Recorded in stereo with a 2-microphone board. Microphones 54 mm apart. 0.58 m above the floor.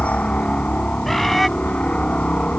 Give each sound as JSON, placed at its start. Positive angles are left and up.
{"t": 0.0, "sound": "a helicopter", "side_deg": 25}
{"t": 1.1, "sound": "a bird", "side_deg": 5}